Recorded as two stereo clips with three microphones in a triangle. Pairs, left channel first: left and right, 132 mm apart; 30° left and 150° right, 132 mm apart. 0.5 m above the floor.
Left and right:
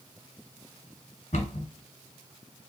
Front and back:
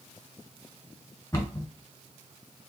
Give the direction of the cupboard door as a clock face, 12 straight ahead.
9 o'clock.